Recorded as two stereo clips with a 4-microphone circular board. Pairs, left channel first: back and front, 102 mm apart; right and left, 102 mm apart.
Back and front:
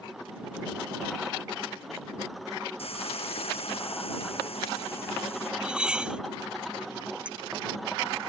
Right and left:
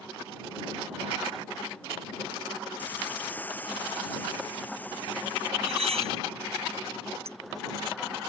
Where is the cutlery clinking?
80° left.